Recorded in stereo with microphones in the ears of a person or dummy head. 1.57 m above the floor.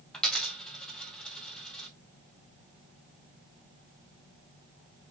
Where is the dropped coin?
10° left (ahead or behind), 2 m.